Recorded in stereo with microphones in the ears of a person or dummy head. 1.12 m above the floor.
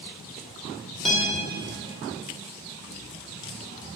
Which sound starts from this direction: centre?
A guitar, at 1.1 s.